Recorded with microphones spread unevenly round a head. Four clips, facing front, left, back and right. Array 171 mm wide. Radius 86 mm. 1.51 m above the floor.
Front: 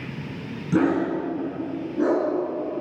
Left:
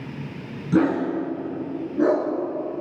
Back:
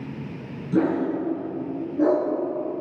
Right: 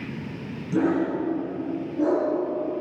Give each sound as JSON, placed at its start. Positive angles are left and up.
{"t": 0.7, "sound": "a dog barking", "azimuth_deg": 40, "distance_m": 5.0}